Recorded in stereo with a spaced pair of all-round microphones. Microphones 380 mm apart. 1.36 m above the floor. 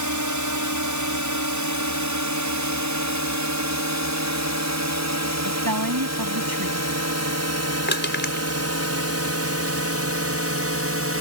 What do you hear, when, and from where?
0.0 s a drone: 50° right (ahead or behind); by 11.2 s 35° right (ahead or behind)
5.4 s a woman speaking: 60° right (ahead or behind)
7.9 s crushing: 25° left (ahead or behind)